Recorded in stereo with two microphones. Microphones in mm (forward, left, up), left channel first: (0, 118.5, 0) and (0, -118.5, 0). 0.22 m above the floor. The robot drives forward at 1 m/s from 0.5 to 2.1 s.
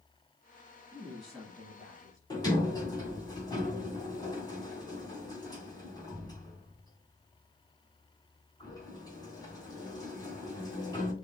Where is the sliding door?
15° left (ahead or behind), 2 m.